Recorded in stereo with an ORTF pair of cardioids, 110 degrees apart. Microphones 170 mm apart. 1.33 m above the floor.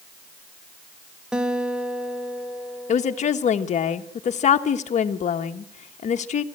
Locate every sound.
1.3 s a guitar: 5° right, 1.1 m
2.9 s a woman speaking: 45° left, 1.4 m